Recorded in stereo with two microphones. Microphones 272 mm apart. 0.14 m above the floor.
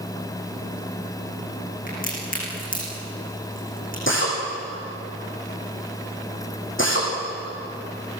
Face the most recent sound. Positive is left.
turn(degrees=50)  # may be behind; listen again after turning